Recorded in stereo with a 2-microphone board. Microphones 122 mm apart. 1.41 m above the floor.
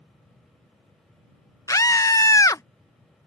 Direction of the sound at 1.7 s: 25° left (ahead or behind).